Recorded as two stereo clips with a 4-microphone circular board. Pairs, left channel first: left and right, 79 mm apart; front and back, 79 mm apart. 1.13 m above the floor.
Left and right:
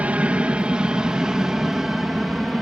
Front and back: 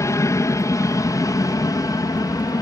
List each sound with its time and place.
0.0 s an aircraft: 25° right; by 2.6 s straight ahead